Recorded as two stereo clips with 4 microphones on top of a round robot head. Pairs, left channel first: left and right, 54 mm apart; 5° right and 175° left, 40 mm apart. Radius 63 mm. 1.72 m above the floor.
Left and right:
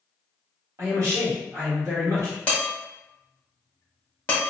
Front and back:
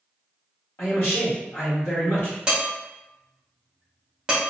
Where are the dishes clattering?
130° left, 0.7 m.